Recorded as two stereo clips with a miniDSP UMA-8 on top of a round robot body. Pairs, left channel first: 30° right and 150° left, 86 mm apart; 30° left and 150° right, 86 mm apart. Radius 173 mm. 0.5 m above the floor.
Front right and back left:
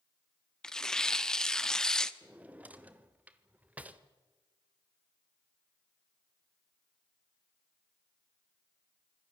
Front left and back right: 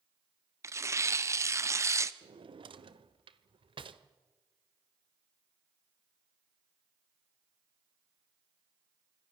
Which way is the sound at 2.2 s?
135° right.